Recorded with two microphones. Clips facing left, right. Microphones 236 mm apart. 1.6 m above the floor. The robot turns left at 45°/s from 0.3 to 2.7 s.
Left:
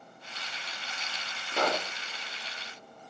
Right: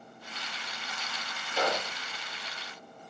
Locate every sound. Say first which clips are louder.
1.5 s a pop: left 1 dB; 55° left (ahead or behind), 4.5 m; by 1.9 s 40° left (ahead or behind), 4.5 m